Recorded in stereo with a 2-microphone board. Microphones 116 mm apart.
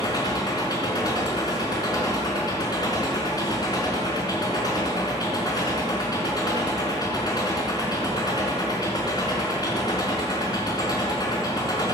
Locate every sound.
0.0 s an engine running: 35° left (ahead or behind), 4 m